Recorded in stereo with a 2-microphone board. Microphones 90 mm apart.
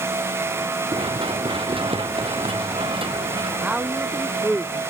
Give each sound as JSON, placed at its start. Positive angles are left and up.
{"t": 0.9, "sound": "running footsteps", "side_deg": -70}
{"t": 3.6, "sound": "a woman speaking", "side_deg": -15}